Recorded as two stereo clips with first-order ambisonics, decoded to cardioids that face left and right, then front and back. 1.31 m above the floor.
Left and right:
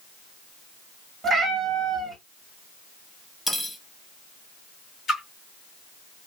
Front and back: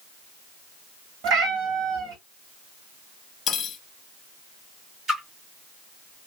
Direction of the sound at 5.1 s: 135° left.